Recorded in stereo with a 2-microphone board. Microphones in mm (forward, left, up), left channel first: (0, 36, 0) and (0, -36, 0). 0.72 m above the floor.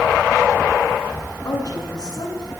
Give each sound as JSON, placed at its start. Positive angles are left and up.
{"t": 1.4, "sound": "a woman speaking", "side_deg": 60, "distance_m": 8.0}